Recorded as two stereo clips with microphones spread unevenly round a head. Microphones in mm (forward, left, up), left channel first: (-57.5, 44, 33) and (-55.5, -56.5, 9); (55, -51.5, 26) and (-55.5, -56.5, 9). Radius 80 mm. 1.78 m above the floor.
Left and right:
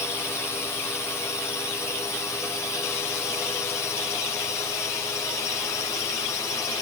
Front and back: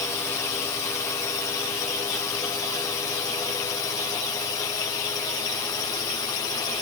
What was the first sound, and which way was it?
A drone, 30° left.